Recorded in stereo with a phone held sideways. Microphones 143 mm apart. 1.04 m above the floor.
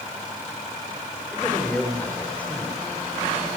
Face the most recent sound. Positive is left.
turn(degrees=10)  # may be behind; listen again after turning